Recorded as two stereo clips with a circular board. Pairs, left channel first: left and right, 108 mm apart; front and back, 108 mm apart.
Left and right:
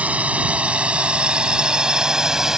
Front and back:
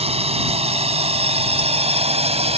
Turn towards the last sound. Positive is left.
turn(degrees=-175)